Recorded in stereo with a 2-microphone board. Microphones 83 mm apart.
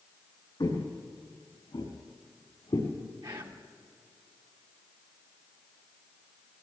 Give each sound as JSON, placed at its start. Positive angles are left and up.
{"t": 0.6, "sound": "footsteps", "side_deg": 75, "distance_m": 3.5}
{"t": 3.2, "sound": "whispering", "side_deg": -70, "distance_m": 2.0}